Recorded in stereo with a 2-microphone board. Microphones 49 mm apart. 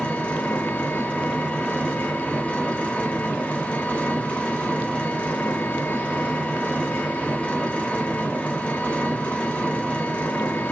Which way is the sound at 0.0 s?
25° left (ahead or behind).